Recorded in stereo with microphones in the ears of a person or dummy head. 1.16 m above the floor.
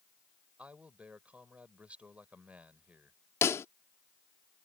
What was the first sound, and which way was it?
A man speaking, 10° right (ahead or behind).